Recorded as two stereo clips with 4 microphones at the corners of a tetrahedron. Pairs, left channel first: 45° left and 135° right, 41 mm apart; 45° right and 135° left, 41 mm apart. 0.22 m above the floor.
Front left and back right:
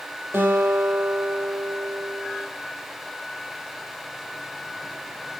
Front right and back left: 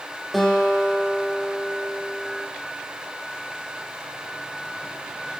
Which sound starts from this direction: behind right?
A guitar, at 0.3 s.